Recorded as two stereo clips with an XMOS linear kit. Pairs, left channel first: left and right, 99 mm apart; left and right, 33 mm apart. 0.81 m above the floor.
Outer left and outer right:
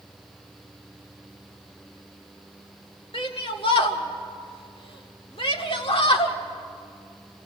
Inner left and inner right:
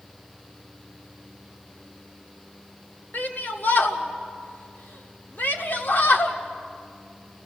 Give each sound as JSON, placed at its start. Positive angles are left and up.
{"t": 3.1, "sound": "a shout", "side_deg": 65, "distance_m": 1.8}